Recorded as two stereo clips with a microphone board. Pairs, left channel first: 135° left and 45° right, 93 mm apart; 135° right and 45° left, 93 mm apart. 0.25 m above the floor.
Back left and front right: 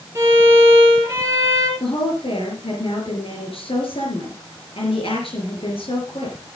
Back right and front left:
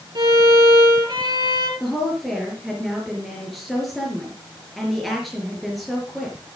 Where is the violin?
15° left, 3 m.